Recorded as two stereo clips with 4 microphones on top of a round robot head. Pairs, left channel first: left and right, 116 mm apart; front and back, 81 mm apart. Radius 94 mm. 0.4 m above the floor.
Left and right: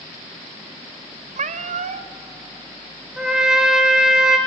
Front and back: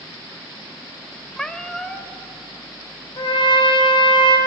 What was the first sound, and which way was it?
A cat meowing, 85° right.